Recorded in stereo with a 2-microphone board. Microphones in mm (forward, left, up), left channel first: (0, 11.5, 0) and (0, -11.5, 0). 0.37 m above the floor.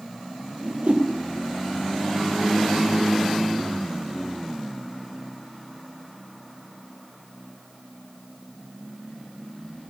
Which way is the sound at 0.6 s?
65° right (ahead or behind).